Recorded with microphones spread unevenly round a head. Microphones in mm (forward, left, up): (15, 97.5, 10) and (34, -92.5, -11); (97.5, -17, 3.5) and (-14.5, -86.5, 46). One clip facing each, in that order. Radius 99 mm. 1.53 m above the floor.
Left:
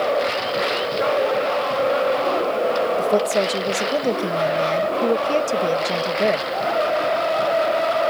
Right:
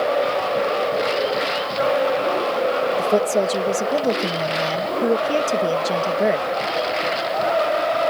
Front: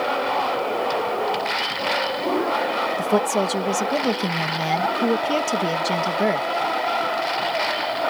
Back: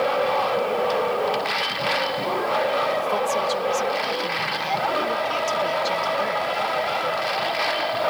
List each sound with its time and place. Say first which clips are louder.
3.0 s a woman speaking: right 2 dB, front 3 dB; straight ahead